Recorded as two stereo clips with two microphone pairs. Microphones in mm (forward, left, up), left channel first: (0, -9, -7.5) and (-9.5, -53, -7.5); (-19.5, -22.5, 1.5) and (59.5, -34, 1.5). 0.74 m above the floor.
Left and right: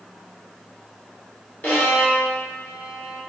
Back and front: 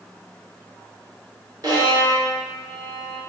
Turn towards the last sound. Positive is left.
turn(degrees=30)